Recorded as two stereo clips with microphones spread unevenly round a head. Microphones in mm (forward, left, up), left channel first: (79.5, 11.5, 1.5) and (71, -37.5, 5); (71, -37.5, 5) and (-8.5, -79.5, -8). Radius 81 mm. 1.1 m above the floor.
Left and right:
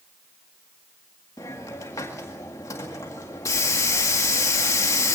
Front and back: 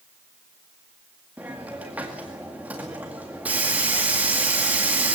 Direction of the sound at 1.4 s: 130° left.